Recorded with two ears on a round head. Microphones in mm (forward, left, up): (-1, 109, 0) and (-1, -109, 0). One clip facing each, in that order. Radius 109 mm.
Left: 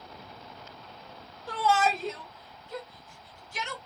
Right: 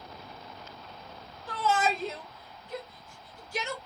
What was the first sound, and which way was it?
A shout, 15° left (ahead or behind).